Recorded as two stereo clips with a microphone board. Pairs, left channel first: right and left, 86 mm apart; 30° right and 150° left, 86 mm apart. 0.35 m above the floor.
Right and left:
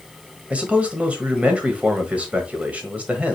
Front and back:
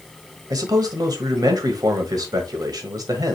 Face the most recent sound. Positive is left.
turn(degrees=160)